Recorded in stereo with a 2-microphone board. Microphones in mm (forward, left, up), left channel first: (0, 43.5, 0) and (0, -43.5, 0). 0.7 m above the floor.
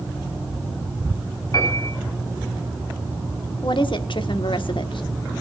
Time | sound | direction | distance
1.5 | a piano | 40° left (ahead or behind) | 8 m
3.6 | a woman speaking | 65° left (ahead or behind) | 1.5 m